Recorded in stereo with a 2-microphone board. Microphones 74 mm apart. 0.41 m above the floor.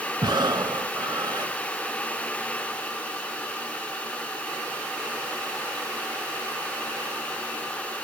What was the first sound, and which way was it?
Breathing, 75° right (ahead or behind).